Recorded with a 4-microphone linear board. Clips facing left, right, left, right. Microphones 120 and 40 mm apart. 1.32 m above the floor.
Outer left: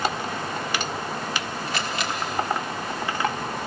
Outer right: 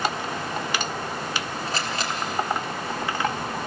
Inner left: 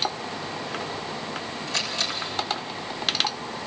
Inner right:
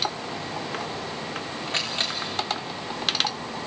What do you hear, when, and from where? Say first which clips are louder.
1.7 s a camera shutter: even, even; 35° right (ahead or behind), 3.5 m